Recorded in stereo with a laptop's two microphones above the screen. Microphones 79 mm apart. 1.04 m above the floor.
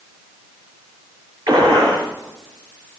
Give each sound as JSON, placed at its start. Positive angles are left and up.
{"t": 1.5, "sound": "a gunshot", "side_deg": -50, "distance_m": 6.0}